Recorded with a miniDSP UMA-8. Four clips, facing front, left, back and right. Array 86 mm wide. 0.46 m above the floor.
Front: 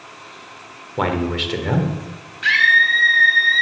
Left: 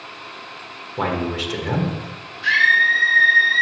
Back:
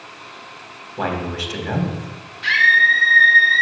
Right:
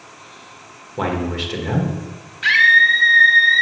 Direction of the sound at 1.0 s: Straight ahead.